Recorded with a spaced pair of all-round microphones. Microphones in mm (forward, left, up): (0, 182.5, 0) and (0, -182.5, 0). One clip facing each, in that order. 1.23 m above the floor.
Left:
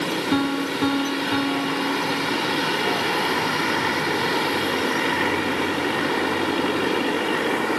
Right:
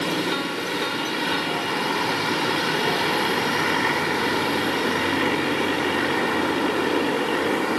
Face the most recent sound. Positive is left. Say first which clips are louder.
# left 6 dB
turn(degrees=65)  # may be behind; listen again after turning